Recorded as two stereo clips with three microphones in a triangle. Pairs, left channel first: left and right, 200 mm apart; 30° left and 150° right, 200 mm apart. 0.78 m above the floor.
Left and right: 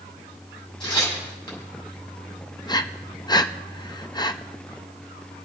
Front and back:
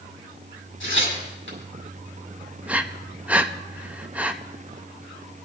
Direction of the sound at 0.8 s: 25° left.